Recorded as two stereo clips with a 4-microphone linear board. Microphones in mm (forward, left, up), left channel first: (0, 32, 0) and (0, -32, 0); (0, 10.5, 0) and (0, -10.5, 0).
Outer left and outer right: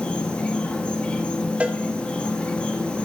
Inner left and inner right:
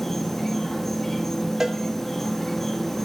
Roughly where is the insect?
Centre.